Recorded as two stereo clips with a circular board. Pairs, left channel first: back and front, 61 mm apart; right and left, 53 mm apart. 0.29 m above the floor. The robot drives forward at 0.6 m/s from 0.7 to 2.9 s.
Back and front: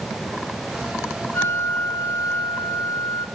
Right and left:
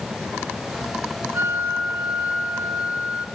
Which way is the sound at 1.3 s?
130° left.